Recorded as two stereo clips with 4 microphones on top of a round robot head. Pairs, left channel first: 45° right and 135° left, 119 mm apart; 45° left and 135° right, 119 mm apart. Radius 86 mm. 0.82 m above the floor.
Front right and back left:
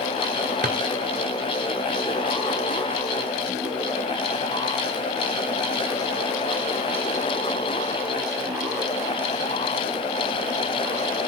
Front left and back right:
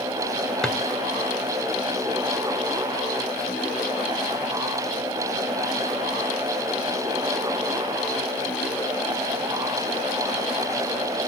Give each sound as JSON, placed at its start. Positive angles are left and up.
{"t": 0.6, "sound": "a drawer", "azimuth_deg": 130, "distance_m": 2.0}